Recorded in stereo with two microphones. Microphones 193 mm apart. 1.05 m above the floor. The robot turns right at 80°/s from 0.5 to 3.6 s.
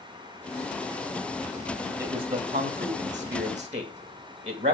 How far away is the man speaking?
About 2 m.